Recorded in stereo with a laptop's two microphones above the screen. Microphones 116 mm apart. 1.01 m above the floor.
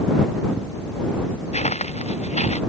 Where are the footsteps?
75° left (ahead or behind); by 2.6 s 70° left (ahead or behind).